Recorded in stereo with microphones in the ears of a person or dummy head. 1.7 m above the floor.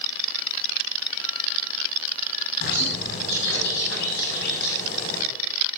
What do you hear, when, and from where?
2.6 s a bird: 60° left (ahead or behind), 5.5 m